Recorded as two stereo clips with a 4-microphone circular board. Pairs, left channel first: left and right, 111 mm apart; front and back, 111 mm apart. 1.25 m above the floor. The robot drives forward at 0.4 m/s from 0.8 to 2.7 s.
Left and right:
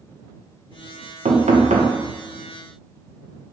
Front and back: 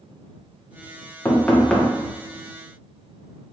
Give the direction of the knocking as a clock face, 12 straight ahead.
2 o'clock.